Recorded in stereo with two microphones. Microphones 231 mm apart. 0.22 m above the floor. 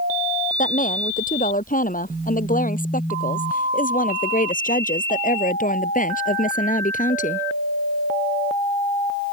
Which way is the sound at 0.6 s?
35° left (ahead or behind).